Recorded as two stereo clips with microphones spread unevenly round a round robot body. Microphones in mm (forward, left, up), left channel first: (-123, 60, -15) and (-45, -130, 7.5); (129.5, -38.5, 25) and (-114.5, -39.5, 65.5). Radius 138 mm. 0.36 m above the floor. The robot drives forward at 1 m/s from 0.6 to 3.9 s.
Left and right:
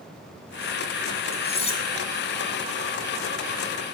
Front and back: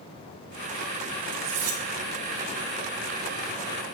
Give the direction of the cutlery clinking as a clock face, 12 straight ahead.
6 o'clock.